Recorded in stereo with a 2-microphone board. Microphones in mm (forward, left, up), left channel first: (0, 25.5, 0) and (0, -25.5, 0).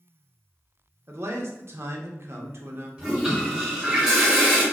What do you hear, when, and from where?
1.1 s a man speaking: 55° right (ahead or behind), 0.6 m
3.0 s a toilet flushing: 10° right (ahead or behind), 1.6 m